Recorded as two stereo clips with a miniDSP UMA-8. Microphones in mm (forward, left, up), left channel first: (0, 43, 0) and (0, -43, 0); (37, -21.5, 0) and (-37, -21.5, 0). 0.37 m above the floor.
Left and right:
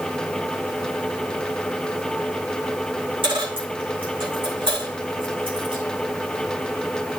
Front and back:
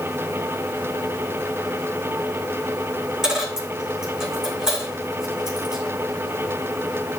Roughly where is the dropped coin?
Right.